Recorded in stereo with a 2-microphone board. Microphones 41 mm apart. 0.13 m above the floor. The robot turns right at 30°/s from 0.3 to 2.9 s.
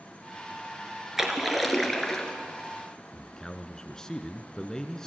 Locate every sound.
1.2 s a splash: 10° right, 2.5 m; by 2.3 s 20° left, 2.5 m
3.1 s a man speaking: 15° left (ahead or behind), 1.2 m